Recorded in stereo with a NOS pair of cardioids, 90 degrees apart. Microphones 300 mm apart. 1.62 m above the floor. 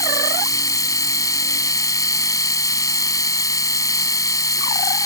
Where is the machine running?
10° left.